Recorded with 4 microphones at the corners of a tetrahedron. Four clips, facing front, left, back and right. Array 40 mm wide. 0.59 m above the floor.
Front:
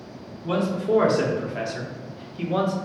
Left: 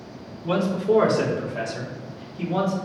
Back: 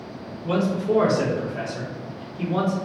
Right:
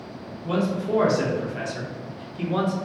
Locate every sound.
0.4 s a man speaking: 65° left, 1.0 m; by 2.8 s 35° right, 1.3 m